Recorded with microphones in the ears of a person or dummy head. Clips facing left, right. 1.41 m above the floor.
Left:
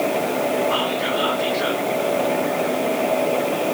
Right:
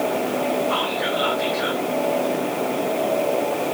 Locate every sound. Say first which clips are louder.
0.7 s whispering: left 2 dB; 35° right (ahead or behind), 1.0 m